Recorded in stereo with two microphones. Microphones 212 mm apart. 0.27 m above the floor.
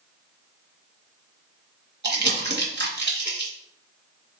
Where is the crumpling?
50° right (ahead or behind), 0.9 m.